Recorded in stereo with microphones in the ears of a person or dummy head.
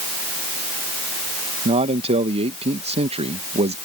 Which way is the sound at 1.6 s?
30° right (ahead or behind).